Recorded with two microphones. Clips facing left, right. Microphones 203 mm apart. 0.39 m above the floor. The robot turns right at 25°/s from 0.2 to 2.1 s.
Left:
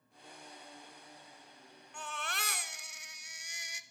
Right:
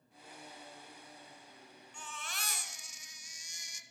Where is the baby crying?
65° left (ahead or behind), 0.5 m.